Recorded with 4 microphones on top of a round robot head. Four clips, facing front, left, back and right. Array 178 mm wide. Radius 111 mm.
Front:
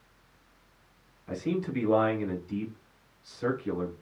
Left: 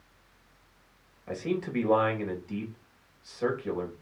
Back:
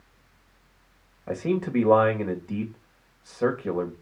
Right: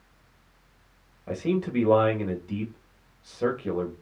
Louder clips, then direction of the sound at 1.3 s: Right 4 dB, back 5 dB; 160° right.